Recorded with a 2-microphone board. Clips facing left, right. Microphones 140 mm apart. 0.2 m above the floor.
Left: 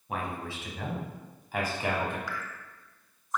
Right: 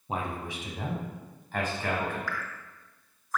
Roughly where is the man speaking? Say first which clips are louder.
Right 1 dB; right.